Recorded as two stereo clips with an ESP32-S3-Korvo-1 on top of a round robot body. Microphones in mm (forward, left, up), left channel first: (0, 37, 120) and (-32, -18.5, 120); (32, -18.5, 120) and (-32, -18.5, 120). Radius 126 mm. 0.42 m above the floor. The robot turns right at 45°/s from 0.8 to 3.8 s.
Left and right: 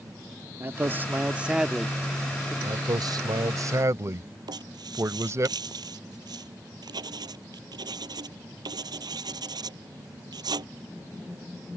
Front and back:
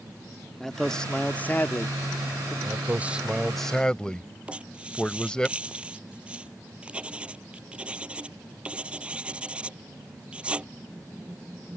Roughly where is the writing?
Right.